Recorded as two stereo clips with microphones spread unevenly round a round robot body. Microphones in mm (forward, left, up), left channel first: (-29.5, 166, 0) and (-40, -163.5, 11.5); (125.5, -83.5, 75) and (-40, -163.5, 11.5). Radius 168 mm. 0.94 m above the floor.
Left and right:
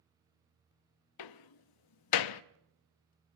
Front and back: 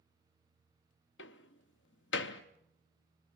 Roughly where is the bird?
I don't hear a bird.